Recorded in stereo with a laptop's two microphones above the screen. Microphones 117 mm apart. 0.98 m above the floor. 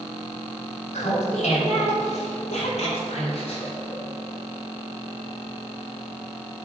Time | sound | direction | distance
0.9 | laughter | 80° left | 2 m